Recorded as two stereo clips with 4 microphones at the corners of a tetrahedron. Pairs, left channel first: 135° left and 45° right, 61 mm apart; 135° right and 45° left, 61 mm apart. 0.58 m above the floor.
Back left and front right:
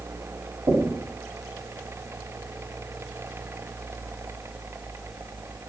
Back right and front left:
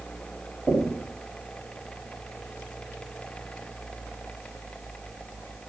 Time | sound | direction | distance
0.7 | knocking | 30° right | 2.5 m